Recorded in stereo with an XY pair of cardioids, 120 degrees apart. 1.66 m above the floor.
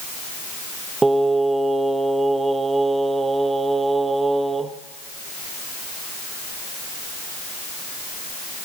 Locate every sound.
1.0 s singing: 20° right, 0.8 m